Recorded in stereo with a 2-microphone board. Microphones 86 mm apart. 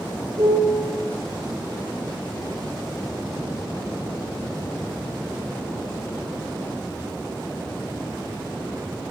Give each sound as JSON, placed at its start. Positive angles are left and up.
{"t": 0.4, "sound": "a piano", "side_deg": -55, "distance_m": 1.2}